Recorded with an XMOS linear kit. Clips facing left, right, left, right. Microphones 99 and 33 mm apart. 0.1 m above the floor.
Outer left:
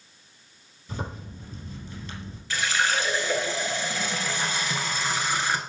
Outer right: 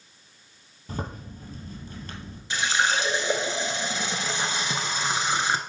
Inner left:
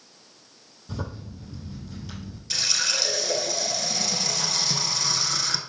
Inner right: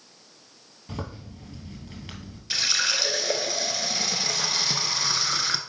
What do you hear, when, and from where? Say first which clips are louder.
0.9 s a zipper: outer right 1 dB, inner left 1 dB; 50° right (ahead or behind), 2.5 m
2.5 s a running tap: outer right 1 dB, inner right 2 dB; 20° right (ahead or behind), 0.8 m